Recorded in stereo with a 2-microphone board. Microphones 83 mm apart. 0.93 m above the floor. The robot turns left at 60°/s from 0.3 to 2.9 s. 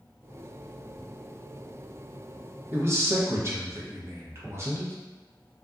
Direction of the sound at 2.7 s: 25° right (ahead or behind).